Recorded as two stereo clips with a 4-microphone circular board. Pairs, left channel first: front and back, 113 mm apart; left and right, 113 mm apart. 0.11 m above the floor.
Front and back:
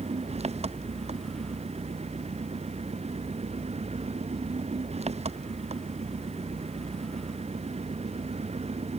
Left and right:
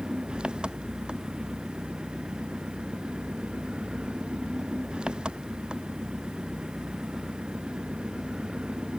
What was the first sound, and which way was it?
An engine running, 170° right.